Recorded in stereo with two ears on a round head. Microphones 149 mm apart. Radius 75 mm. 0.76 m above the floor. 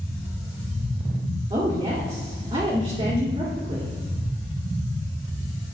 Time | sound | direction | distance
1.5 | a woman speaking | 25° right (ahead or behind) | 1.9 m